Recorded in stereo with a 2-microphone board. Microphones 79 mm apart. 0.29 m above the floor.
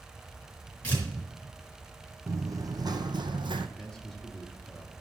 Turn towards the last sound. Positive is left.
turn(degrees=10)  # may be behind; listen again after turning